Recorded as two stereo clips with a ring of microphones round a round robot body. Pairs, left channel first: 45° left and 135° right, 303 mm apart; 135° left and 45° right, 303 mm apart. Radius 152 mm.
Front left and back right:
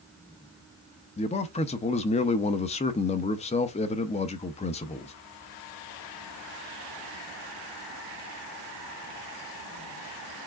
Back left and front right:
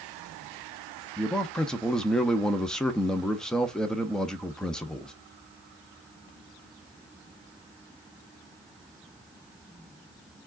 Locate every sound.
1.2 s a man speaking: 50° left, 0.5 m